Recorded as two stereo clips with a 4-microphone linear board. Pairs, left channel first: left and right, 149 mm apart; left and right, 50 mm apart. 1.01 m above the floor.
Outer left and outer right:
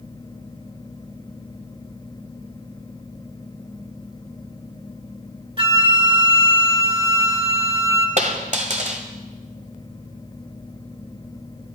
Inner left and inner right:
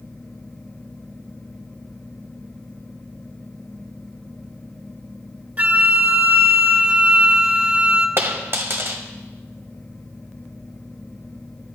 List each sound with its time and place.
5.6 s a flute: 35° right (ahead or behind), 1.4 m
8.2 s a dropped coin: 50° right (ahead or behind), 1.5 m